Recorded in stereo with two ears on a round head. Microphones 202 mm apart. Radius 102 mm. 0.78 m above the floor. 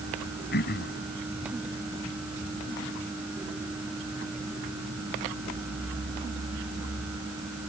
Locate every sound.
0.5 s throat clearing: 50° left (ahead or behind)